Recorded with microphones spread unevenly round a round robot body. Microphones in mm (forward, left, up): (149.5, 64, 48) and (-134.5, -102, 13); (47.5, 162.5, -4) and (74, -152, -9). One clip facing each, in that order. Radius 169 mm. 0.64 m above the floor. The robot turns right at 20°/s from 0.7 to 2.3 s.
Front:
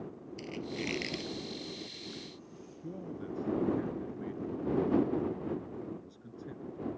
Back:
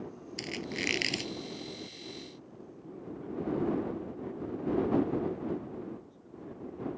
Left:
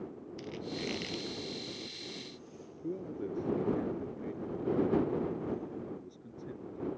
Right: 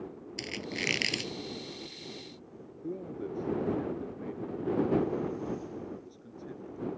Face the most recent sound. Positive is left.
turn(degrees=10)